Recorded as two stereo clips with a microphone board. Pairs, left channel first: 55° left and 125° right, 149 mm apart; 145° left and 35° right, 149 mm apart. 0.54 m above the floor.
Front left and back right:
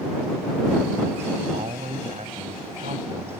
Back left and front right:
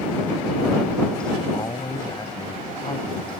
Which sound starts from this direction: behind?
A man speaking, at 1.5 s.